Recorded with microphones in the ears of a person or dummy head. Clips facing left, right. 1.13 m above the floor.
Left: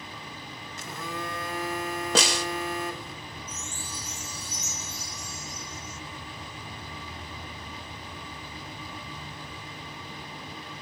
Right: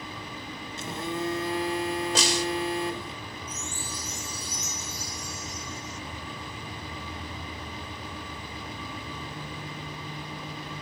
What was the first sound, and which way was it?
A phone buzzing, 20° right (ahead or behind).